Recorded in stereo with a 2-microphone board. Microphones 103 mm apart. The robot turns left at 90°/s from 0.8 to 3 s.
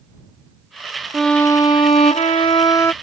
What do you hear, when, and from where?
1.1 s a violin: 175° right; by 2.9 s 25° left